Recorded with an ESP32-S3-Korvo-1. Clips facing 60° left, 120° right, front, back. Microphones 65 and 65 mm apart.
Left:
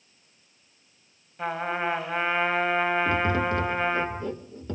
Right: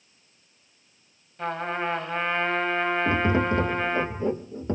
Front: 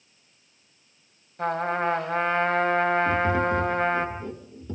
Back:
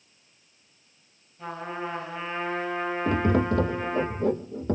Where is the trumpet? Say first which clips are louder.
Even, front 8 dB; 25° right, 4 m.